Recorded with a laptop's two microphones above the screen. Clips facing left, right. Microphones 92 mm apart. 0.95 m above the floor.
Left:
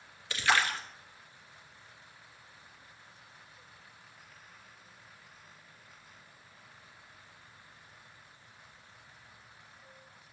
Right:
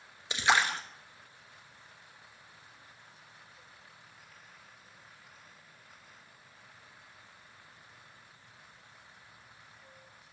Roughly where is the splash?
Centre.